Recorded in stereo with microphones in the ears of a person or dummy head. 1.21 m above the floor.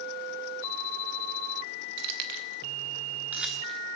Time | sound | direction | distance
2.0 | keys jangling | 65° right (ahead or behind) | 1.0 m